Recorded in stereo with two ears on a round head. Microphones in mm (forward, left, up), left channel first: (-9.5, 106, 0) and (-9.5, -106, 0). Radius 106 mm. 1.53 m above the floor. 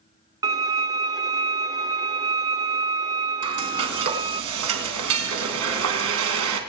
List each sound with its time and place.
0.4 s a violin: 15° right (ahead or behind), 1.0 m
3.4 s frying: 65° right (ahead or behind), 3 m